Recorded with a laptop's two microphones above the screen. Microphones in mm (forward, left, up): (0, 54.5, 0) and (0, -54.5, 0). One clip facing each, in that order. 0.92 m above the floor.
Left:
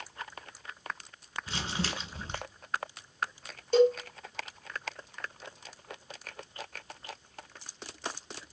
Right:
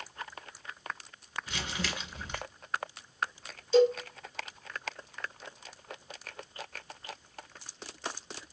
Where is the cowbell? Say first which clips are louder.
Even; 55° left (ahead or behind), 1.1 m.